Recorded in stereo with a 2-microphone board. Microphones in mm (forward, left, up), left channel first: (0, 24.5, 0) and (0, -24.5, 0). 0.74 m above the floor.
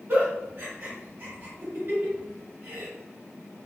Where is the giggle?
50° right (ahead or behind), 1.2 m.